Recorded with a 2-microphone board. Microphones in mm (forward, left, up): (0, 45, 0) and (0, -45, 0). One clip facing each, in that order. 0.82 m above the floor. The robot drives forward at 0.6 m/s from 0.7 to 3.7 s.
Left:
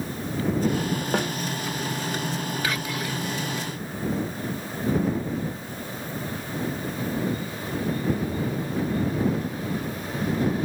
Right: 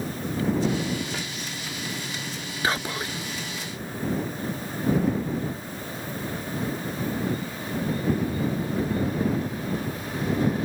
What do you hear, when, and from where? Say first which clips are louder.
1.1 s a snare drum: left 9 dB; 50° left (ahead or behind); by 1.3 s 60° left (ahead or behind)
2.6 s whispering: right 1 dB; 30° right (ahead or behind)